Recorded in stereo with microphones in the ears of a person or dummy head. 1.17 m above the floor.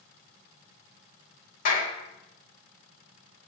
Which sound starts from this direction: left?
A clap, at 1.6 s.